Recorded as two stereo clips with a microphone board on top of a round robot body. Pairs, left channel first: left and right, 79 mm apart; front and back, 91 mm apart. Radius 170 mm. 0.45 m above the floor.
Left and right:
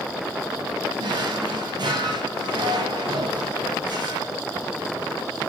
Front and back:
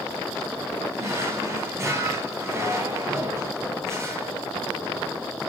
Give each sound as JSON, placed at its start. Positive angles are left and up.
{"t": 1.0, "sound": "a drawer", "azimuth_deg": -120, "distance_m": 2.5}